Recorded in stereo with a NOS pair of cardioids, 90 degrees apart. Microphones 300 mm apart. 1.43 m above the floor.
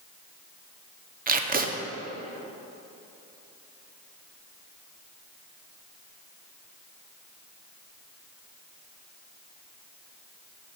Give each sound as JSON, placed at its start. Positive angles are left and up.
{"t": 1.3, "sound": "tape being pulled", "azimuth_deg": -30, "distance_m": 0.8}